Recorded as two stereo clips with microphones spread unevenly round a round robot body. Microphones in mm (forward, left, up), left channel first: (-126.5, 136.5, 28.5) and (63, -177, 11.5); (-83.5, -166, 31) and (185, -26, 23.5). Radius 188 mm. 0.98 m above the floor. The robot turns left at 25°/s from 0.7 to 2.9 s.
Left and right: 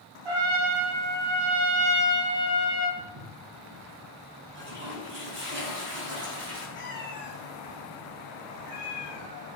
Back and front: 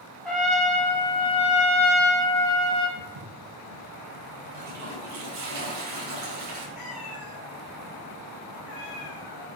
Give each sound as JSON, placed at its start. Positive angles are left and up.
{"t": 0.2, "sound": "a trumpet", "azimuth_deg": -65, "distance_m": 3.0}
{"t": 3.0, "sound": "footsteps", "azimuth_deg": 5, "distance_m": 4.5}
{"t": 4.5, "sound": "a toilet flushing", "azimuth_deg": 5, "distance_m": 4.0}
{"t": 6.8, "sound": "a cat meowing", "azimuth_deg": 180, "distance_m": 2.5}